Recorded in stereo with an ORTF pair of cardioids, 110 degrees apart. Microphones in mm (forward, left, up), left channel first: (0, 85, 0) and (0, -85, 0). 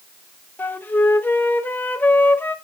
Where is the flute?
10° left, 1.0 m.